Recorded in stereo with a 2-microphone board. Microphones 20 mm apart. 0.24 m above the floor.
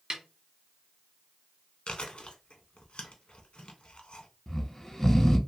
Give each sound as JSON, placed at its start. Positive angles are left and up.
{"t": 0.1, "sound": "a snare drum", "side_deg": -45, "distance_m": 0.7}
{"t": 1.9, "sound": "chewing", "side_deg": 70, "distance_m": 0.7}
{"t": 4.5, "sound": "snoring", "side_deg": 30, "distance_m": 0.6}